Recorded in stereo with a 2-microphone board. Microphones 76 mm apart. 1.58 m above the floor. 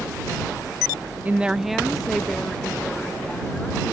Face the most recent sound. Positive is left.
turn(degrees=15)  # may be behind; listen again after turning